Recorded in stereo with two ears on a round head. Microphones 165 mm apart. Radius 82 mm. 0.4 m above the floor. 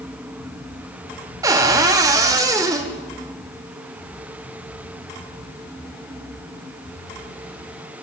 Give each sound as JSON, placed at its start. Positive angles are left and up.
{"t": 1.4, "sound": "a cupboard door", "side_deg": -20, "distance_m": 1.1}